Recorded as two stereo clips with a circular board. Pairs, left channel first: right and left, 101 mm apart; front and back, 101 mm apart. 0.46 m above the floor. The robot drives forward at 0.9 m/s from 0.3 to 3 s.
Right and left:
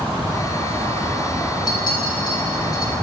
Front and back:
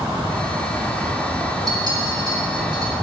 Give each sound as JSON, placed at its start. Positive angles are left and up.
{"t": 1.7, "sound": "a clink", "azimuth_deg": -130, "distance_m": 4.5}